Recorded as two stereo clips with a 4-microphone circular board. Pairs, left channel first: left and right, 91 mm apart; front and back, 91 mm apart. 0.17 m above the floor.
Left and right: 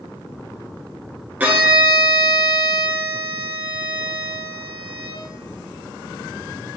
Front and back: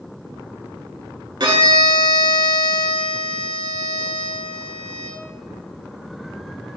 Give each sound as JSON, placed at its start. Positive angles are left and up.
{"t": 1.4, "sound": "a violin", "azimuth_deg": -160, "distance_m": 0.8}